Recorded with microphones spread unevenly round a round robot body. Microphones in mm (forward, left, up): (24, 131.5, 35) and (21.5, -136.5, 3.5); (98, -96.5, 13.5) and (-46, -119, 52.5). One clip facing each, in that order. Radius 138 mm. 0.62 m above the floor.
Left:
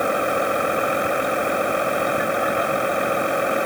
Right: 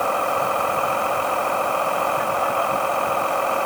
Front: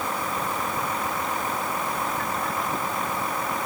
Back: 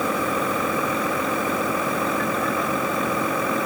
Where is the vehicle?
165° left.